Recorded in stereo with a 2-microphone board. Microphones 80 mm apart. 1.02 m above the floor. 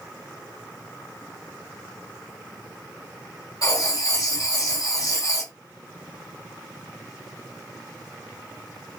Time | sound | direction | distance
3.6 | writing | 45° left (ahead or behind) | 1.0 m